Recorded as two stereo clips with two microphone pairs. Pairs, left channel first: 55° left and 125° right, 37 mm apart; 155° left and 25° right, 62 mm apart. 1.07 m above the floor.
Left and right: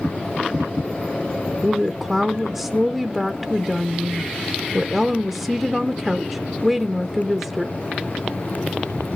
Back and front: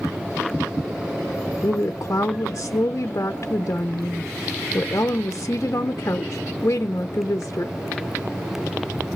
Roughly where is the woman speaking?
Behind left.